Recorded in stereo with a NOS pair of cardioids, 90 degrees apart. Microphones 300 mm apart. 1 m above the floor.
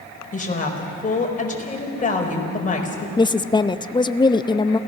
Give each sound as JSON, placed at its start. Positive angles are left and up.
{"t": 0.3, "sound": "a woman speaking", "azimuth_deg": 25, "distance_m": 4.5}
{"t": 3.2, "sound": "a woman speaking", "azimuth_deg": 15, "distance_m": 0.8}